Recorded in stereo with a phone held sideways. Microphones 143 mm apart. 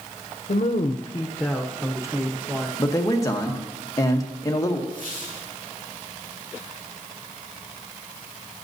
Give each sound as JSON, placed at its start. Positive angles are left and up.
{"t": 0.5, "sound": "a woman speaking", "side_deg": 75, "distance_m": 0.6}
{"t": 2.8, "sound": "a man speaking", "side_deg": 25, "distance_m": 1.0}
{"t": 4.9, "sound": "a squeak", "side_deg": -65, "distance_m": 5.0}